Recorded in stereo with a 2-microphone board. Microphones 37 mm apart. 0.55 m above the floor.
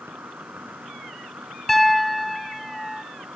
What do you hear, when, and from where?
0.0 s an insect: 80° right
1.7 s a piano: 5° left (ahead or behind)